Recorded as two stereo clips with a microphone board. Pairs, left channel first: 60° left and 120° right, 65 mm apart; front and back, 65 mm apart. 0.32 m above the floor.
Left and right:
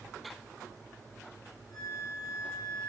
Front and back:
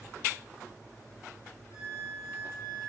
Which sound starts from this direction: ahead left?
A flute, at 1.7 s.